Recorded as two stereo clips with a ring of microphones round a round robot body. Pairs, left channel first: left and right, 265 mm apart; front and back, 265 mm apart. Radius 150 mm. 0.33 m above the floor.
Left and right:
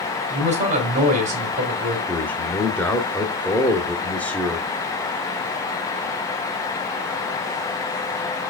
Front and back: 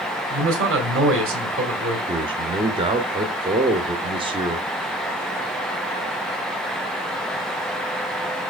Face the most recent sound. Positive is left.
turn(degrees=165)